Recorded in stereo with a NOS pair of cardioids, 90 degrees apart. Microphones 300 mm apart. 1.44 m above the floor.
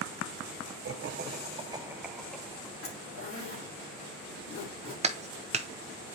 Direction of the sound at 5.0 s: 25° right.